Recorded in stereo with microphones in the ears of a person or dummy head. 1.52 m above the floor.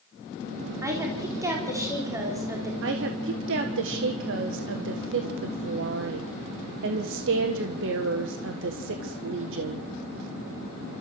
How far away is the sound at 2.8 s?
About 1.5 m.